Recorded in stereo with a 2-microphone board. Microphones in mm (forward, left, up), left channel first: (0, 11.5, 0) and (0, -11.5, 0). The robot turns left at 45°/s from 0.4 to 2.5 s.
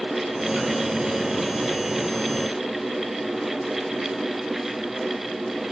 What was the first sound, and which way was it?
Only background noise.